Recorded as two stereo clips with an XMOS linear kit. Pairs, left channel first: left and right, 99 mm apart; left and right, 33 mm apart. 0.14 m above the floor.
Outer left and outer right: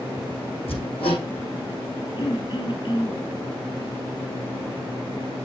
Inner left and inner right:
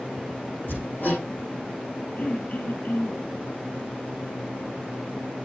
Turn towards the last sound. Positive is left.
turn(degrees=50)  # may be behind; listen again after turning